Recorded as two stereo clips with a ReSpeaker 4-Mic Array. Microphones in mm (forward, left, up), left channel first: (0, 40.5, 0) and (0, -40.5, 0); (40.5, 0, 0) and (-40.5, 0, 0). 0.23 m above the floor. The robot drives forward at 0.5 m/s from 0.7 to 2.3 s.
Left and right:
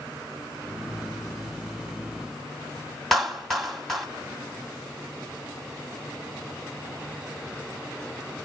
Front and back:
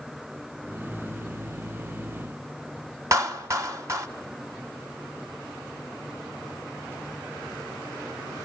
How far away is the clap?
About 1.4 m.